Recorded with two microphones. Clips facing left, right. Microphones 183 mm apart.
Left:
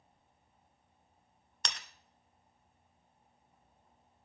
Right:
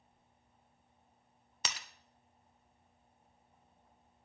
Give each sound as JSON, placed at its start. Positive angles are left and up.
{"t": 1.6, "sound": "breaking glass", "side_deg": -5, "distance_m": 1.2}